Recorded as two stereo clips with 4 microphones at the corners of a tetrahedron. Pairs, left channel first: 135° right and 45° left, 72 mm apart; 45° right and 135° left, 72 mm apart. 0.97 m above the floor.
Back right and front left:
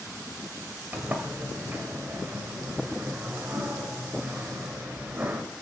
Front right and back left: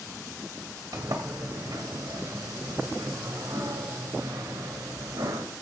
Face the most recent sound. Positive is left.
turn(degrees=115)